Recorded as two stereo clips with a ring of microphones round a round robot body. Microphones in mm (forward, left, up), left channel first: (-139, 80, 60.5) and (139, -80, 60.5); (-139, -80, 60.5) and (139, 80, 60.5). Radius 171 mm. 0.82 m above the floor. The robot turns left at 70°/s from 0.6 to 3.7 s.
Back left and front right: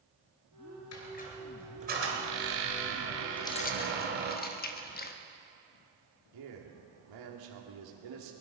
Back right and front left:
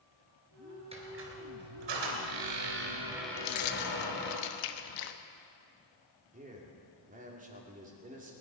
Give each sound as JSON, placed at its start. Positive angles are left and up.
{"t": 0.9, "sound": "a squeak", "azimuth_deg": 105, "distance_m": 3.0}
{"t": 3.4, "sound": "keys jangling", "azimuth_deg": -125, "distance_m": 1.0}
{"t": 6.3, "sound": "a man speaking", "azimuth_deg": -35, "distance_m": 2.5}